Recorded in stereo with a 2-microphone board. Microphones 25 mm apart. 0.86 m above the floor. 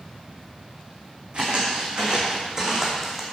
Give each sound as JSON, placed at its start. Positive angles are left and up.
{"t": 1.3, "sound": "footsteps", "side_deg": -45, "distance_m": 4.0}